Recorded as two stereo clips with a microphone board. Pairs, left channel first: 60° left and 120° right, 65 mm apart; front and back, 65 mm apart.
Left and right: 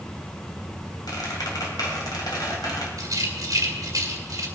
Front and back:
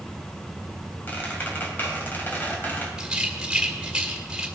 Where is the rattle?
100° right, 2.0 m.